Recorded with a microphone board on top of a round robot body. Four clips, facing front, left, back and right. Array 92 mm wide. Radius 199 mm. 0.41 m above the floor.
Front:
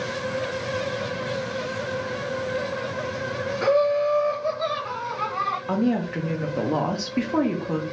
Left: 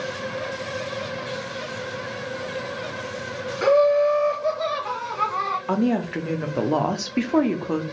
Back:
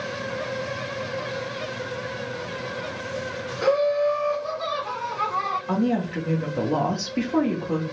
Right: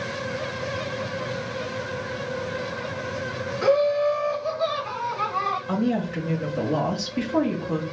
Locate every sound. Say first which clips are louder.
3.6 s laughter: left 3 dB, even; 80° left, 1.8 m; by 5.6 s 90° left, 2.5 m
5.7 s a woman speaking: left 5 dB, even; 80° left, 1.1 m